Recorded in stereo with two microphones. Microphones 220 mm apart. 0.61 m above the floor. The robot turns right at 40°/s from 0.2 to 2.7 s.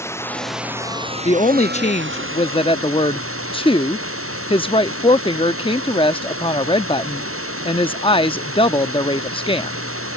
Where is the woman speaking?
70° left; by 9.8 s 130° left.